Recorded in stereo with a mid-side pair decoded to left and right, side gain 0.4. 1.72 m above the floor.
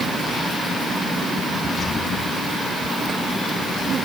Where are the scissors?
I don't hear scissors.